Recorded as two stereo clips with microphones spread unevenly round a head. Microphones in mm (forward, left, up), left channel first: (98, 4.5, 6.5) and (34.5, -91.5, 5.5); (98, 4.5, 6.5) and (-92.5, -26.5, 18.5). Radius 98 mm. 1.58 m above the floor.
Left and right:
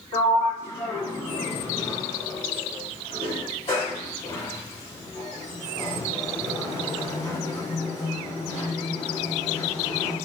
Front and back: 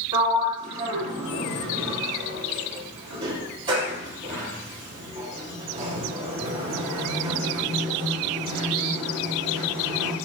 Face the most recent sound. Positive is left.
turn(degrees=120)